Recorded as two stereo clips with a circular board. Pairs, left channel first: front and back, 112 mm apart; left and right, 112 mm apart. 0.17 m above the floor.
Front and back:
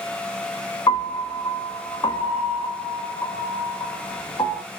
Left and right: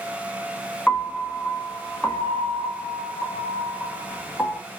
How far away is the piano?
About 1.5 m.